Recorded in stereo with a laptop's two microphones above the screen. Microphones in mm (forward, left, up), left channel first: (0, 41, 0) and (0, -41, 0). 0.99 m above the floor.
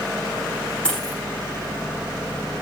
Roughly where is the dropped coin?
Centre.